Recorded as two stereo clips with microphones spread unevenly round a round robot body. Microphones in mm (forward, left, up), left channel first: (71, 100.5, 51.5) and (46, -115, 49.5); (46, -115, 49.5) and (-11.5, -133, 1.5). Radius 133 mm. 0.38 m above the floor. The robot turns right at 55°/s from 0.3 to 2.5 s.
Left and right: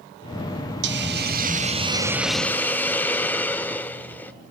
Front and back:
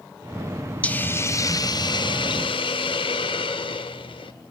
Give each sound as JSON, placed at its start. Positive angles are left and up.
{"t": 0.8, "sound": "a hiss", "azimuth_deg": -90, "distance_m": 0.7}